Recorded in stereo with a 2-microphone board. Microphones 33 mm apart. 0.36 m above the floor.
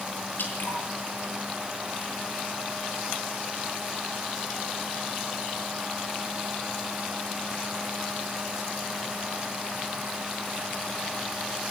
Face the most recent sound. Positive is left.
turn(degrees=70)  # may be behind; listen again after turning